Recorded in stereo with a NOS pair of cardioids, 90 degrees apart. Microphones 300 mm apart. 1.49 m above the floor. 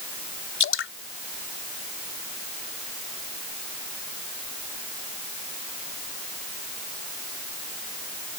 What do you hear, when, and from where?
0.6 s dripping: 45° left